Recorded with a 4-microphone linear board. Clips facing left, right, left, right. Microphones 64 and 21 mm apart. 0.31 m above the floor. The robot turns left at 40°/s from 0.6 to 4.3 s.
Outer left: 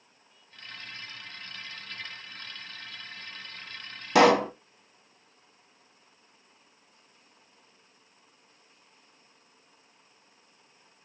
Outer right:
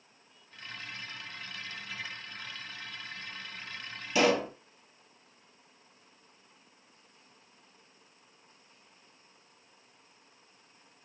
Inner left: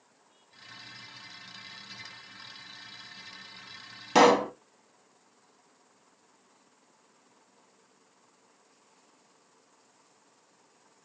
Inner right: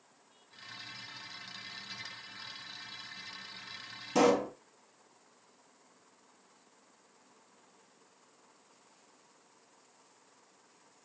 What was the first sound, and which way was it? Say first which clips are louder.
A pop: outer left 7 dB, inner left 6 dB; 65° left (ahead or behind).